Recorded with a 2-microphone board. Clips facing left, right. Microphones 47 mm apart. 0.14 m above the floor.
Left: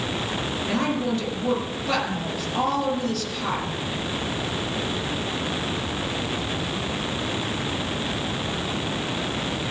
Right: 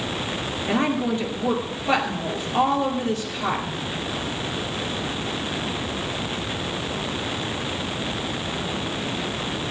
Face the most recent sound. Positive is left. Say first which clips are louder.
# right 3 dB
turn(degrees=-25)  # may be behind; listen again after turning